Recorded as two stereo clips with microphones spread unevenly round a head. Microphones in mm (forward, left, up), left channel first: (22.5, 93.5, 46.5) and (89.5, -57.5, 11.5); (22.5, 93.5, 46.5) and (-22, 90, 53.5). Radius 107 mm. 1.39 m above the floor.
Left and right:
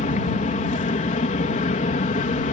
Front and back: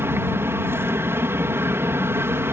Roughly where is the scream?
I don't hear a scream.